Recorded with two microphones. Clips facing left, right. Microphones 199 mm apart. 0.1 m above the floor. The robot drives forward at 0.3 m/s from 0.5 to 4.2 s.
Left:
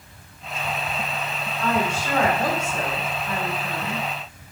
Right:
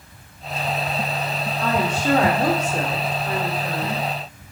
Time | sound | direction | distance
1.6 | a woman speaking | 70° right (ahead or behind) | 5 m